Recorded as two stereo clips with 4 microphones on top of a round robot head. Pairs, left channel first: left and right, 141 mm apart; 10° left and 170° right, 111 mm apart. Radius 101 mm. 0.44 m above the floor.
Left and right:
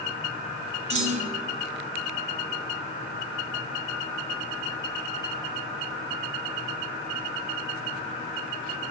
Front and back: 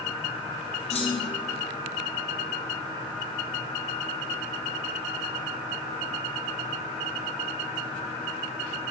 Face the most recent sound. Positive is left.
turn(degrees=-45)